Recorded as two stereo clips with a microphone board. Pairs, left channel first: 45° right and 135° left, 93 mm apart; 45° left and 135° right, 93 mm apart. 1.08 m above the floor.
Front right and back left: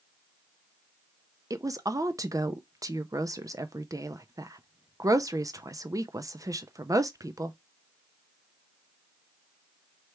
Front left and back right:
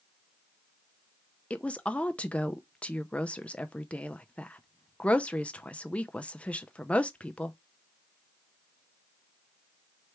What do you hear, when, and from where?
1.5 s a woman speaking: 115° left, 0.5 m